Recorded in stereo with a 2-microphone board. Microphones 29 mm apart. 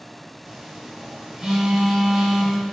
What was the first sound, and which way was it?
A phone buzzing, 10° right (ahead or behind).